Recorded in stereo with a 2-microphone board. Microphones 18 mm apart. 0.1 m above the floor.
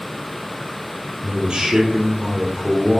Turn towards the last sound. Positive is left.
turn(degrees=-50)  # may be behind; listen again after turning